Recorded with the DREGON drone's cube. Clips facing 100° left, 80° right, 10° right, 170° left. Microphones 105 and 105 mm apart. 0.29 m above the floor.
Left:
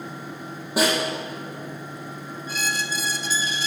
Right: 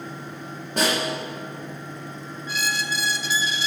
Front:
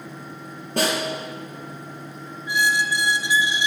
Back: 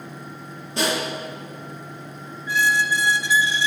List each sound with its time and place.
0.8 s a snare drum: 20° left, 7.5 m
2.5 s a squeak: 60° left, 1.2 m